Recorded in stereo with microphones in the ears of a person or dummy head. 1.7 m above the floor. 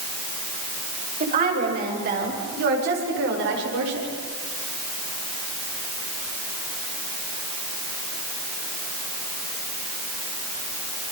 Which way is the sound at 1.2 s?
45° right (ahead or behind).